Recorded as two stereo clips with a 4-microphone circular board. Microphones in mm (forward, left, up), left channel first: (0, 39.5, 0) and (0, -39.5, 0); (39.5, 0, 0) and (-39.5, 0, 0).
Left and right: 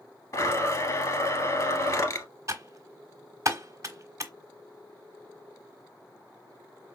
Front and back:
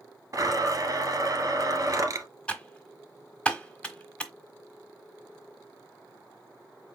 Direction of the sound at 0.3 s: 135° left.